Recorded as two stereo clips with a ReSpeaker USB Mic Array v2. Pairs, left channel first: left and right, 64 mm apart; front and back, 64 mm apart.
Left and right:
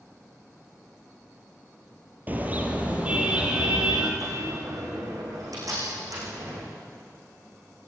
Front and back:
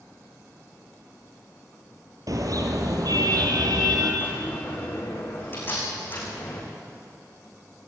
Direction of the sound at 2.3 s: 150° right.